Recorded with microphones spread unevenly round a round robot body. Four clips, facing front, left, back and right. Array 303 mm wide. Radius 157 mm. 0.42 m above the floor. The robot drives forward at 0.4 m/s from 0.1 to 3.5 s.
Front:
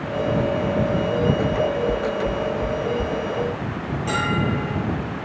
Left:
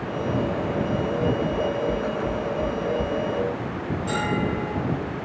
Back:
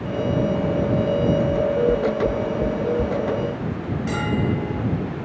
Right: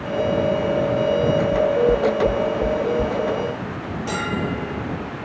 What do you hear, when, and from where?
1.5 s knocking: 105° right, 1.0 m; by 3.1 s 150° right, 1.2 m
4.1 s a bell: 160° right, 6.5 m